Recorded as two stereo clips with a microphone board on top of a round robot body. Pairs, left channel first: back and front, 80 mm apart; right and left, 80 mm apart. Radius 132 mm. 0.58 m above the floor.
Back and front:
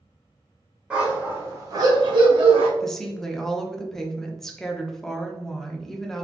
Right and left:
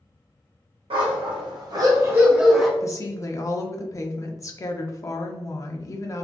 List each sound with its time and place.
0.9 s a dog barking: 80° left, 1.0 m; by 2.7 s straight ahead, 0.8 m
2.8 s a woman speaking: 95° right, 0.8 m